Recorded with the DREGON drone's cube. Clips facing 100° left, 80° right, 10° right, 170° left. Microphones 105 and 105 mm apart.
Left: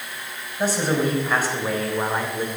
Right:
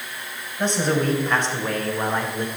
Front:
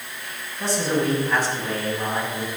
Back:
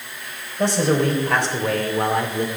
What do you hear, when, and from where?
0.6 s a man speaking: 175° right, 3 m